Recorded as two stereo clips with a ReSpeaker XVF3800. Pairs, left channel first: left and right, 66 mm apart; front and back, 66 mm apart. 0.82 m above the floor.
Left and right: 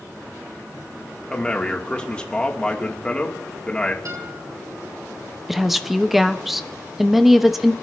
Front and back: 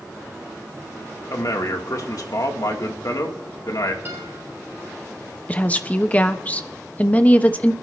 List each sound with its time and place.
1.3 s a man speaking: 15° left, 2.5 m
4.0 s a guitar: 120° right, 7 m
5.5 s a woman speaking: 10° right, 0.9 m